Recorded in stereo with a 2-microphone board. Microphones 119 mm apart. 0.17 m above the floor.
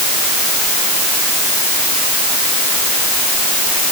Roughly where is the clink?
I don't hear a clink.